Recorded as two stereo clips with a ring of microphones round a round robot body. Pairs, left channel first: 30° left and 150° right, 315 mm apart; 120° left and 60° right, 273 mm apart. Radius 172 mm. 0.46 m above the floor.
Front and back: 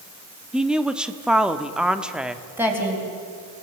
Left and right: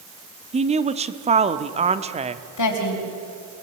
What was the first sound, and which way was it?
A woman speaking, 65° right.